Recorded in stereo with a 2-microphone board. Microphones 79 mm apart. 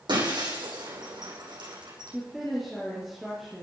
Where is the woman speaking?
Centre (ahead or behind), 5 m.